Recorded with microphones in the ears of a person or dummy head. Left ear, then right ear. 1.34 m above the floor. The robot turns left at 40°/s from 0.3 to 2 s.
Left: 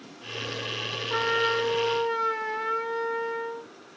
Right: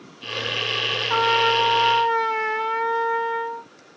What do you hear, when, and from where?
1.1 s a trumpet: 95° right, 0.9 m; by 3.7 s 130° right, 0.9 m